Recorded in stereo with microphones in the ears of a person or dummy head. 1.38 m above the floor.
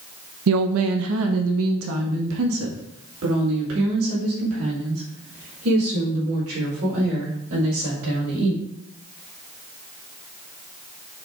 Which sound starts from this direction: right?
A woman speaking, at 0.5 s.